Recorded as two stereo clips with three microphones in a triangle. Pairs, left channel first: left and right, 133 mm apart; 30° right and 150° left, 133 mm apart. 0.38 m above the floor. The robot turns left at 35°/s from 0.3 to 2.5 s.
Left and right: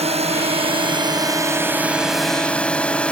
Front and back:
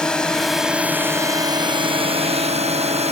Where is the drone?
115° right; by 3.1 s 170° left.